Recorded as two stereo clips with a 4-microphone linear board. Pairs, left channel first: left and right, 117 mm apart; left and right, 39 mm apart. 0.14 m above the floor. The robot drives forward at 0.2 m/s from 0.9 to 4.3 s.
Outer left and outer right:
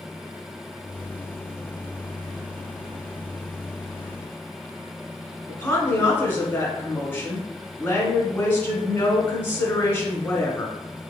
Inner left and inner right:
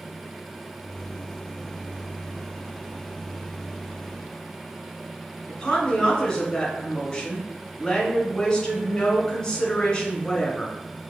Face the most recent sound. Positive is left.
turn(degrees=20)  # may be behind; listen again after turning